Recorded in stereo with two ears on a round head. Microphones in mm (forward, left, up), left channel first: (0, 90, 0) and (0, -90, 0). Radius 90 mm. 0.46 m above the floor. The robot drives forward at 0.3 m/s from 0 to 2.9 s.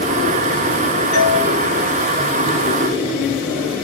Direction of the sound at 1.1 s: 50° left (ahead or behind).